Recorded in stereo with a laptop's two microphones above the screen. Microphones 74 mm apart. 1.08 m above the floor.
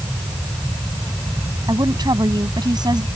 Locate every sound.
1.7 s a woman speaking: 85° right